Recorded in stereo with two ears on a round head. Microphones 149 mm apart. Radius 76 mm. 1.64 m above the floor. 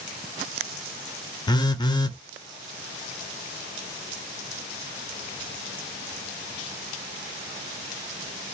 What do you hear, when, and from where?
1.5 s a phone buzzing: 25° left (ahead or behind), 0.5 m